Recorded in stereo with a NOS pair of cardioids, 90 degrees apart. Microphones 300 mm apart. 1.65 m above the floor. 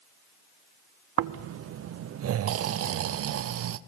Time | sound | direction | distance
1.2 | snoring | 50° right | 0.6 m